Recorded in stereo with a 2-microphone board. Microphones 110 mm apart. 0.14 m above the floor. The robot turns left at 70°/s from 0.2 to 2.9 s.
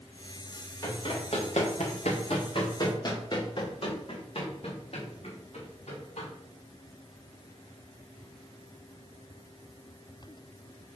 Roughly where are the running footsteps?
Left.